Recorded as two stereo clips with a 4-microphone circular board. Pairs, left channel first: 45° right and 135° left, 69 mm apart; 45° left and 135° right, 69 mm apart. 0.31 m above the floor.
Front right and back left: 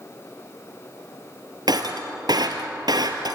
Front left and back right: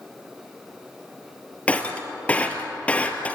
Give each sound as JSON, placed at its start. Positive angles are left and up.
{"t": 1.7, "sound": "breaking glass", "azimuth_deg": 115, "distance_m": 2.0}